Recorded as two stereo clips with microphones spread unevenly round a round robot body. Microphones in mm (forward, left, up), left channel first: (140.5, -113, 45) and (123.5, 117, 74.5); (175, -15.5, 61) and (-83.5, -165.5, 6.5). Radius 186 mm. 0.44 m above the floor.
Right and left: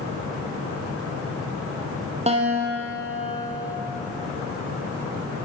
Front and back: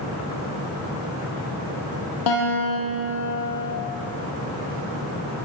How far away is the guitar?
About 5.5 m.